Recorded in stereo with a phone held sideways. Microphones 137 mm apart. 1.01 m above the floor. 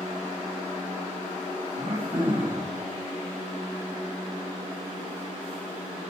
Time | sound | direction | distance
1.8 | throat clearing | 65° right (ahead or behind) | 4.5 m